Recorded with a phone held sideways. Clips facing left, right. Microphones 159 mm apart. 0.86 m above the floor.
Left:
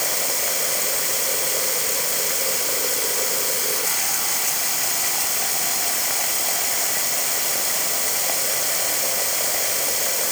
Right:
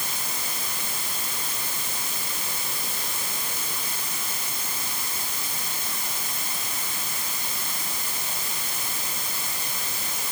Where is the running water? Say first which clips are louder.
Left 9 dB; 75° left (ahead or behind).